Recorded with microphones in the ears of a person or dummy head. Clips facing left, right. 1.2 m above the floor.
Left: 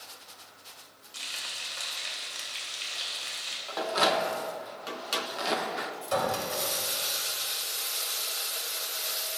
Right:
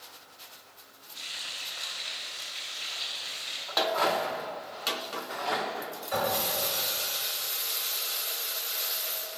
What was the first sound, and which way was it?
Frying, 80° left.